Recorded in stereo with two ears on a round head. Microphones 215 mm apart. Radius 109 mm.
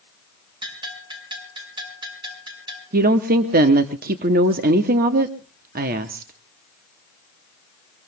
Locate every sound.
0.6 s a bell: 20° right (ahead or behind), 6 m
2.9 s a woman speaking: 35° right (ahead or behind), 0.9 m